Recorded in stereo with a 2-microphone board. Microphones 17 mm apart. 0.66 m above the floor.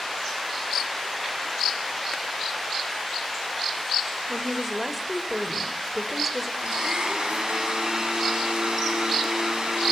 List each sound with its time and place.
4.3 s a woman speaking: 10° right (ahead or behind), 2 m
6.6 s a blender: 50° right (ahead or behind), 4.5 m